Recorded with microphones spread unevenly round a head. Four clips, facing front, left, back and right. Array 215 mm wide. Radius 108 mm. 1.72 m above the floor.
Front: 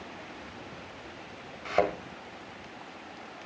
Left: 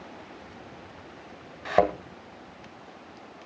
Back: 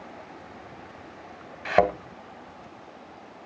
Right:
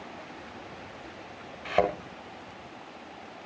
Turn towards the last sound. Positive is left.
turn(degrees=150)